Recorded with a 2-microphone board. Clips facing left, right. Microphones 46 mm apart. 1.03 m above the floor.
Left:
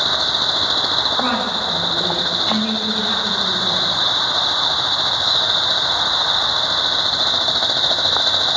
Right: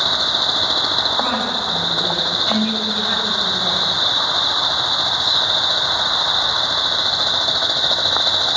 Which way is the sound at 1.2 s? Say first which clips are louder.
Left 1 dB; 30° left (ahead or behind).